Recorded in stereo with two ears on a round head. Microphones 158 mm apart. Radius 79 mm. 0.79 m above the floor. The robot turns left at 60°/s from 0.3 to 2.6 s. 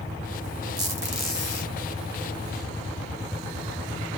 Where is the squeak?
150° right, 1.6 m; by 1.7 s 150° left, 1.6 m.